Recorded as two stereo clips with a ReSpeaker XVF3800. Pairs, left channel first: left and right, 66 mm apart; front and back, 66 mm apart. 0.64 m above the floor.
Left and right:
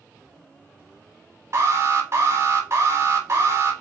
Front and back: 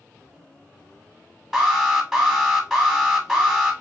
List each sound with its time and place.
1.5 s an alarm: 100° right, 1.3 m